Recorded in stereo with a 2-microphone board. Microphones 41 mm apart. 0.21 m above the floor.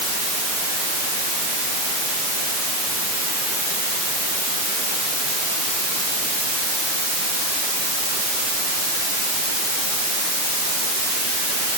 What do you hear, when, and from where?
Only background noise.